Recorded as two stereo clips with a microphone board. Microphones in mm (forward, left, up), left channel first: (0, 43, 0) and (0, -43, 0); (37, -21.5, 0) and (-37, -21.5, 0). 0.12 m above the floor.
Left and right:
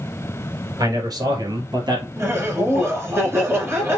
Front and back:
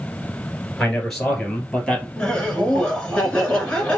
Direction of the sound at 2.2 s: 65° right.